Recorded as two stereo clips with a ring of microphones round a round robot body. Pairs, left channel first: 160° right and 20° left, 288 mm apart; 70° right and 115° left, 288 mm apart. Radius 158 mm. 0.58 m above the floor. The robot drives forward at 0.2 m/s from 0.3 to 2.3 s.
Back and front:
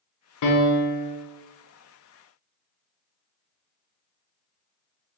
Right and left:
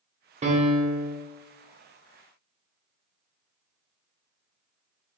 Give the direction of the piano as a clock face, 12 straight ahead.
6 o'clock.